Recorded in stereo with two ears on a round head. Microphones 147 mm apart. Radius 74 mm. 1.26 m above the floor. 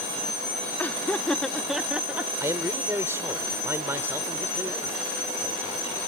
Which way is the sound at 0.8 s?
10° left (ahead or behind).